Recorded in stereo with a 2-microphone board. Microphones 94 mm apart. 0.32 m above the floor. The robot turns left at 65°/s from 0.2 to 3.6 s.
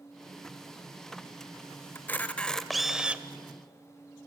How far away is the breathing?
No breathing in this recording.